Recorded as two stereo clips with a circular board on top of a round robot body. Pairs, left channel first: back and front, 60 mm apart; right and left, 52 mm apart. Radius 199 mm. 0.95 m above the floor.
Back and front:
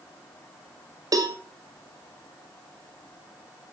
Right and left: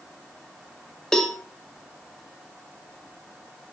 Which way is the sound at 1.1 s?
10° right.